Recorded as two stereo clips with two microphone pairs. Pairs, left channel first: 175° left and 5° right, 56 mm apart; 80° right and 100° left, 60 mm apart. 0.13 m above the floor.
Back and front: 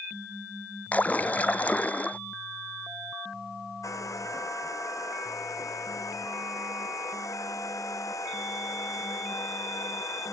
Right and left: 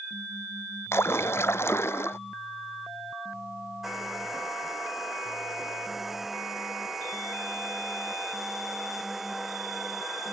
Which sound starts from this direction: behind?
A hair dryer, at 3.8 s.